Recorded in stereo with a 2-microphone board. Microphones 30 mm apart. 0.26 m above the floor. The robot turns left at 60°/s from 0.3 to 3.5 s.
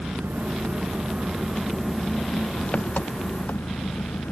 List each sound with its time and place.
0.0 s an engine running: 85° right; by 4.3 s 85° left